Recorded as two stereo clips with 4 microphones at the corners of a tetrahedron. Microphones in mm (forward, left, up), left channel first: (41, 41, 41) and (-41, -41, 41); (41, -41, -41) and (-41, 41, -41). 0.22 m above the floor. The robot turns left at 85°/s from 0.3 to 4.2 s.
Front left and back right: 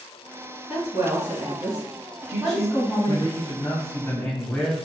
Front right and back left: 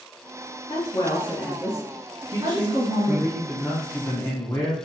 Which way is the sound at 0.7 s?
55° right.